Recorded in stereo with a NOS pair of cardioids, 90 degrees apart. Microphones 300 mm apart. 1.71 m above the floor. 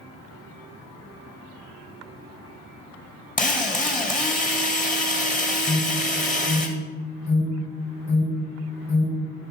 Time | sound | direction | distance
3.4 | a drill | 25° left | 2.5 m
5.7 | an alarm | 30° left | 3.5 m